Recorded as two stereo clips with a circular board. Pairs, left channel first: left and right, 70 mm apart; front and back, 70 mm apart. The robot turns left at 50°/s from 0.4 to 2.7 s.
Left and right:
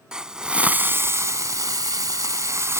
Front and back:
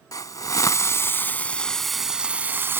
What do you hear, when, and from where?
0.1 s a hiss: 15° right; by 2.8 s 130° right